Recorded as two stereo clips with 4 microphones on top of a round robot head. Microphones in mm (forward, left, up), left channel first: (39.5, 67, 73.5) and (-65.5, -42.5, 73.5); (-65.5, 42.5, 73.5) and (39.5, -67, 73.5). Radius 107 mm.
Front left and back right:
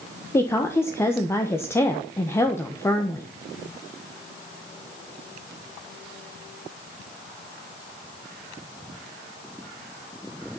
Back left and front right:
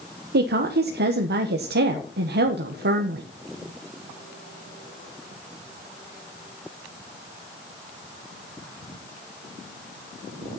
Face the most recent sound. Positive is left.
turn(degrees=-30)